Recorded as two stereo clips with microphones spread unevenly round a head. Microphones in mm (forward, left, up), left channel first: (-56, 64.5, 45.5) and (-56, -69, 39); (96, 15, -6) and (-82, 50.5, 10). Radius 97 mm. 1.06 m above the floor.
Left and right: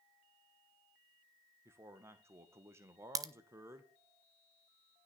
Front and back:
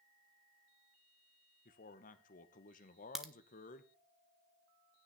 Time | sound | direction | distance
1.6 | a man speaking | 25° right | 1.0 m
3.1 | a crack | 95° right | 0.8 m